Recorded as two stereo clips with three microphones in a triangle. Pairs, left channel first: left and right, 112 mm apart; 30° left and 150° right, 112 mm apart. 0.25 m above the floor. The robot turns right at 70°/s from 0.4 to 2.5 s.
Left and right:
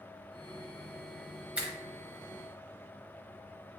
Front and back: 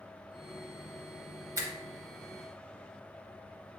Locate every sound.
1.6 s a finger snap: 160° right, 0.8 m; by 1.7 s 150° right, 0.8 m